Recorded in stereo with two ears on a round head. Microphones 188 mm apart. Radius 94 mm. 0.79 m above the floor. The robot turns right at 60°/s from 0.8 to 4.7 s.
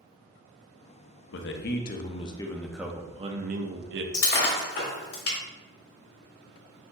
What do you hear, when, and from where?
1.3 s a man speaking: 95° left, 0.7 m; by 4.0 s 100° right, 0.7 m
4.1 s breaking glass: 35° left (ahead or behind), 1.9 m; by 5.4 s 70° left (ahead or behind), 1.9 m